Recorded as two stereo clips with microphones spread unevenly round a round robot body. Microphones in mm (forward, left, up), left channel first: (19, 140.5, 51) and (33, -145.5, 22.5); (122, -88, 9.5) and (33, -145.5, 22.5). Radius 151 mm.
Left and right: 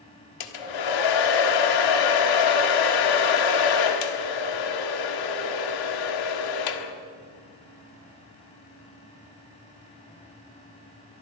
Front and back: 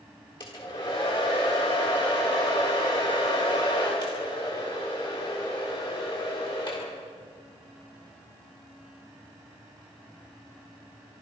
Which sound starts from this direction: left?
A hair dryer, at 0.4 s.